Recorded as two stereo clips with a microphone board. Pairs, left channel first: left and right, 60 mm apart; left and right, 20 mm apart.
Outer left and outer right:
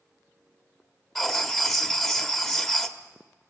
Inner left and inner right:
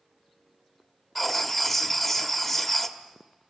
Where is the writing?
5° left (ahead or behind), 1.3 m.